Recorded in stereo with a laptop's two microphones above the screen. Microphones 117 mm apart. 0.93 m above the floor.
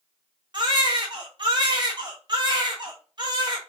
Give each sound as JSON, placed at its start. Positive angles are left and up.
{"t": 0.5, "sound": "a baby crying", "side_deg": -40, "distance_m": 0.9}